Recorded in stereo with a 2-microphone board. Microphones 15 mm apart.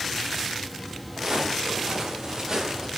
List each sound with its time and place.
1.2 s footsteps: 50° right (ahead or behind), 7.5 m; by 2.9 s 30° right (ahead or behind), 7 m